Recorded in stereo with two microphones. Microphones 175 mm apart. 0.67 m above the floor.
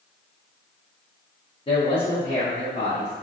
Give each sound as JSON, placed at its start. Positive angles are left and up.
{"t": 1.7, "sound": "a man speaking", "side_deg": 30, "distance_m": 0.6}